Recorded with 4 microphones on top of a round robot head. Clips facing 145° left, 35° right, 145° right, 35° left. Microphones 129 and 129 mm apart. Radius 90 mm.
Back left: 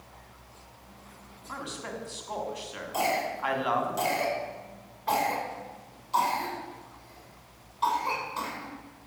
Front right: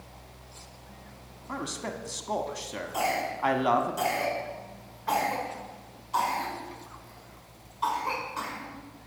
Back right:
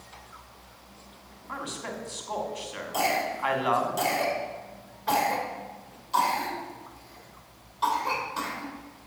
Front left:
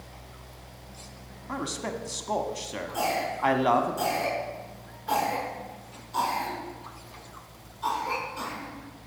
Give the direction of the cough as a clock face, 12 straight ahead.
5 o'clock.